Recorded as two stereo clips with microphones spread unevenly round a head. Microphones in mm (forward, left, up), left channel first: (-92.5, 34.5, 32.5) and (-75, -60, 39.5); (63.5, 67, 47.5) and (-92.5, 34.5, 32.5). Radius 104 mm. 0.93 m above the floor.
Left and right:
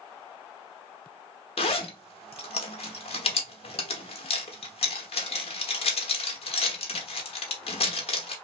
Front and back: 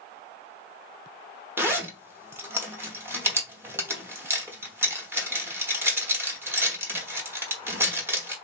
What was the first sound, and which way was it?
A zipper, 115° left.